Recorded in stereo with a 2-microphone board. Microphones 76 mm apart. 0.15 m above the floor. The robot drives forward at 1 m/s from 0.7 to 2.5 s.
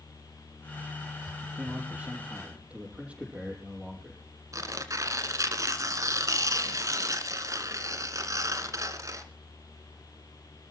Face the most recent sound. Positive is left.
turn(degrees=-45)  # may be behind; listen again after turning